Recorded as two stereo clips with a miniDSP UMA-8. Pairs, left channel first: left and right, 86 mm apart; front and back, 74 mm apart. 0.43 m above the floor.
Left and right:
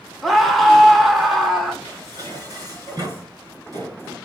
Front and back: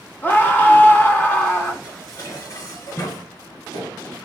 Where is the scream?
Straight ahead, 0.8 m.